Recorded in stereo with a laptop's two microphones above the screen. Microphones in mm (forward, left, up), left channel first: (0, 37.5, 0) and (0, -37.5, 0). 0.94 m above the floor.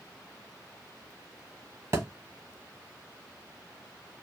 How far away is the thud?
About 1.0 m.